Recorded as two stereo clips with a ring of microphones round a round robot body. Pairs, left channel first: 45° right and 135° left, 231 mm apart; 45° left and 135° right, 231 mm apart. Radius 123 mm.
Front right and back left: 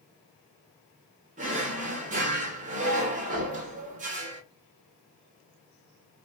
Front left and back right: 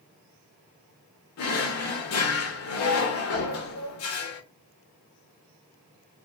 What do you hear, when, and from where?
1.4 s a drawer: 75° left, 0.7 m